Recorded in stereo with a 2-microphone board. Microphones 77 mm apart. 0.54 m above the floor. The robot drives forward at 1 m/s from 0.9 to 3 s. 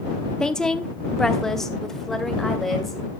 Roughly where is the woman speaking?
Centre.